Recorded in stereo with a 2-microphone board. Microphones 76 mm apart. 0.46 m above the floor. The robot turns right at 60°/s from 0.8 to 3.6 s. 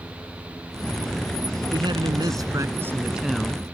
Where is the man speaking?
100° right; by 3.6 s 15° left.